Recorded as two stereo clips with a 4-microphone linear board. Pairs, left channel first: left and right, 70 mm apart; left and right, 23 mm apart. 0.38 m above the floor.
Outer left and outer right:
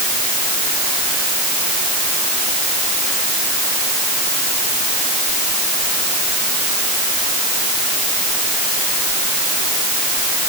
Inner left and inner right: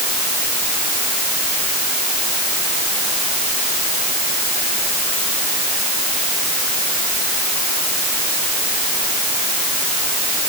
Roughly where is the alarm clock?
No alarm clock in this recording.